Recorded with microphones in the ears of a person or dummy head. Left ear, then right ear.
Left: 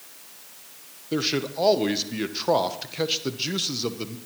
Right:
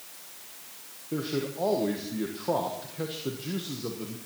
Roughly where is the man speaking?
Left.